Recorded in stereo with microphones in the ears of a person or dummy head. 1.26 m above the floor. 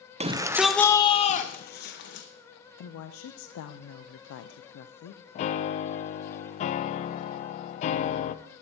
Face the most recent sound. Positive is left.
turn(degrees=40)  # may be behind; listen again after turning